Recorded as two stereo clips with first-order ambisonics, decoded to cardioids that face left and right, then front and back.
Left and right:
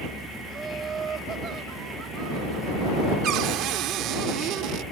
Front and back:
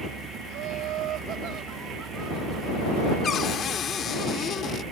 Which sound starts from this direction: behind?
Laughter, at 0.5 s.